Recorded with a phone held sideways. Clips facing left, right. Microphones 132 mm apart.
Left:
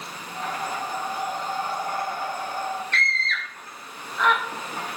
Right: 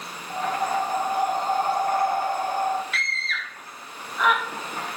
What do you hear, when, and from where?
0.3 s breathing: 50° right (ahead or behind), 1.4 m
2.9 s a scream: 5° right (ahead or behind), 2 m